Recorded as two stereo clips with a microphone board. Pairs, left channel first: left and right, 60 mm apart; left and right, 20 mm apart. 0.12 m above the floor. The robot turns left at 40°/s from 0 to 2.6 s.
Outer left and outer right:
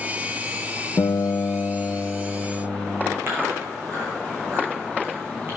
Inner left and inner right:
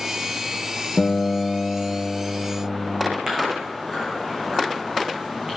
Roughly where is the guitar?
Ahead left.